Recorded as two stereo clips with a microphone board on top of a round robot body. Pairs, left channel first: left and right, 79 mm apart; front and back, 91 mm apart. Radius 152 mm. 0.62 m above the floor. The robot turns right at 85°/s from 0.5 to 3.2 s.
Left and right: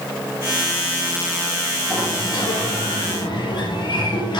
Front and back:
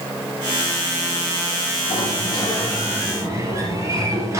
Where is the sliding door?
10° left, 4 m; by 4.4 s 120° left, 4 m.